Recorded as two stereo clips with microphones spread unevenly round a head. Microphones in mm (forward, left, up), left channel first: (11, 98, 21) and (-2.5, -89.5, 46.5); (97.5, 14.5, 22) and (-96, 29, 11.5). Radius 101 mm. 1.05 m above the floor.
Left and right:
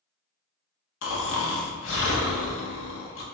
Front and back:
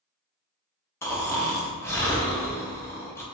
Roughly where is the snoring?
Left.